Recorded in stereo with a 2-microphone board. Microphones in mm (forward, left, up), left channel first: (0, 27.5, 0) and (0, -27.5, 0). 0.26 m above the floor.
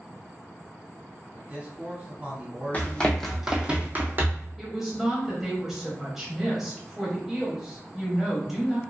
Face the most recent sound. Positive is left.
turn(degrees=-5)  # may be behind; listen again after turning